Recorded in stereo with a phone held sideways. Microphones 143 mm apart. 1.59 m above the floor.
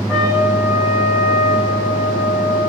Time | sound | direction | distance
0.1 | a trumpet | centre (ahead or behind) | 4 m